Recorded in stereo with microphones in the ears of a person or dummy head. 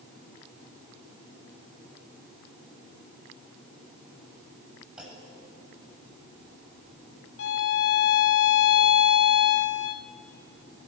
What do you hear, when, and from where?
5.0 s a clunk: centre (ahead or behind), 7 m
7.4 s a violin: 70° left (ahead or behind), 1.2 m